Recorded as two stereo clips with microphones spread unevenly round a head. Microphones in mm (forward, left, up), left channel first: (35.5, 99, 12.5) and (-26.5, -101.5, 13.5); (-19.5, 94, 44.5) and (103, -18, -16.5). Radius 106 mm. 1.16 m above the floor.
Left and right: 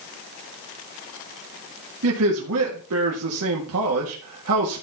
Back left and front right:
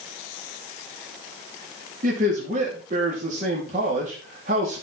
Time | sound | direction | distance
2.0 | a man speaking | 90° right | 2.0 m